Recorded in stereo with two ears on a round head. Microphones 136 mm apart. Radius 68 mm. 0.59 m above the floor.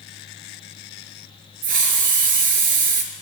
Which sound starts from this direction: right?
A hiss, at 1.6 s.